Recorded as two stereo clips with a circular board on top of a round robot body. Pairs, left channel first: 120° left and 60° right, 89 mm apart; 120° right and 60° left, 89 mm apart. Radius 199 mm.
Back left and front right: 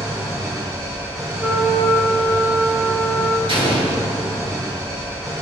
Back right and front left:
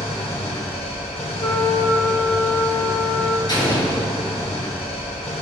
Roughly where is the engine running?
Behind right.